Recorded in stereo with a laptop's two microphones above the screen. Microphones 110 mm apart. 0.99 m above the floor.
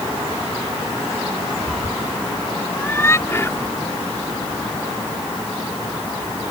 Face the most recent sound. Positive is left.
turn(degrees=25)  # may be behind; listen again after turning